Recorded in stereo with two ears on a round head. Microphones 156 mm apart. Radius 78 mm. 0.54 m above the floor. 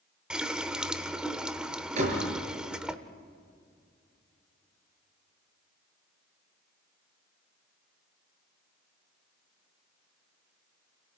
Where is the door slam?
45° right (ahead or behind), 6.5 m.